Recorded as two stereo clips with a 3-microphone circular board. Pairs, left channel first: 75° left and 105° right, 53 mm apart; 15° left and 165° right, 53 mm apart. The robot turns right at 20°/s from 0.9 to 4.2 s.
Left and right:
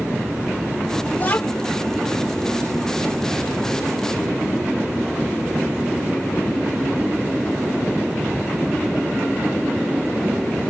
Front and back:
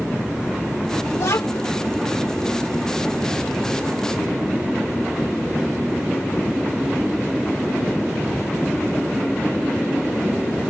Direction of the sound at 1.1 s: 25° left.